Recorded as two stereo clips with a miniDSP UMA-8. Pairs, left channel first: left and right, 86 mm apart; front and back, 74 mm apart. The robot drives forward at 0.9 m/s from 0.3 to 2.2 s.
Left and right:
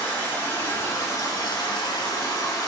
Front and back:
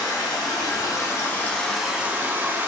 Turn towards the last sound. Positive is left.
turn(degrees=120)